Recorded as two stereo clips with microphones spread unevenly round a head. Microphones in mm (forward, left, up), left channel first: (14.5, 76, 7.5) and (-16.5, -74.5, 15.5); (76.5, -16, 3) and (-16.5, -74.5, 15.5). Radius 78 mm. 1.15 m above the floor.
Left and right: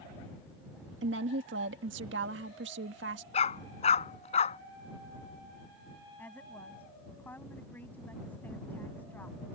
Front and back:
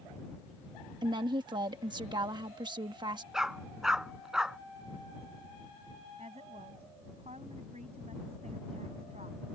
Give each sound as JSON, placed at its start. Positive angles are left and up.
{"t": 1.0, "sound": "a woman speaking", "azimuth_deg": -100}
{"t": 3.3, "sound": "a dog barking", "azimuth_deg": 130}
{"t": 6.2, "sound": "a woman speaking", "azimuth_deg": 160}